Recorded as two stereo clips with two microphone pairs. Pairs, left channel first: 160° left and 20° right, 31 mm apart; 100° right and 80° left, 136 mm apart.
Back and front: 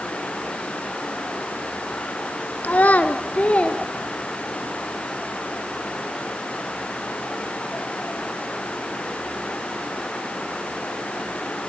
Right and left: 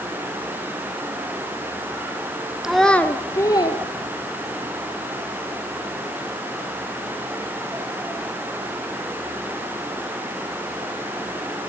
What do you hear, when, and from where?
2.6 s a child speaking: 165° left, 1.4 m; by 4.7 s 145° right, 3 m